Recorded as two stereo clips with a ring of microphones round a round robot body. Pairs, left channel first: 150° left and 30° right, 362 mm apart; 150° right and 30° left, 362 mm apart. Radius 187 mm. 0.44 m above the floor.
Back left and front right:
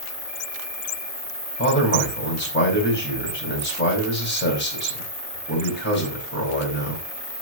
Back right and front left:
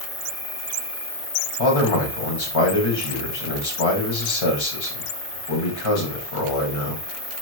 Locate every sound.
0.0 s an insect: 140° right, 3 m
1.6 s a man speaking: 150° right, 3 m